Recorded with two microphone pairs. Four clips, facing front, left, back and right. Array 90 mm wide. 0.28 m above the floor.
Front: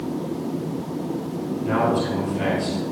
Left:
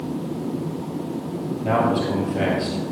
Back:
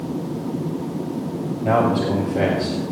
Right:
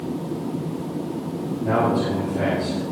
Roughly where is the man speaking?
Behind.